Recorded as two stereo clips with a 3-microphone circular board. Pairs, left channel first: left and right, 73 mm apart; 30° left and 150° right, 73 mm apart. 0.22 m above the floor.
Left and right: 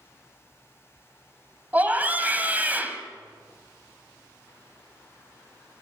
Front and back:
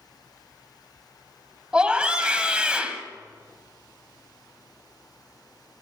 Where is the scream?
95° right, 1.4 m.